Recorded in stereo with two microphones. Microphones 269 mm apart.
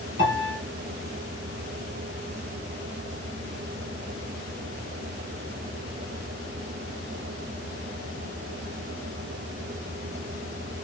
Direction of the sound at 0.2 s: 40° right (ahead or behind).